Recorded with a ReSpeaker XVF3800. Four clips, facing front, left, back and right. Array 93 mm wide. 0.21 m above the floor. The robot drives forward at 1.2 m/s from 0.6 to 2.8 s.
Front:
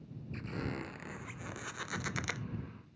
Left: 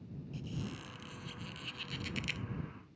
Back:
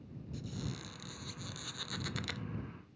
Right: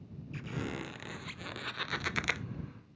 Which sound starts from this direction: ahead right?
A squeak, at 0.3 s.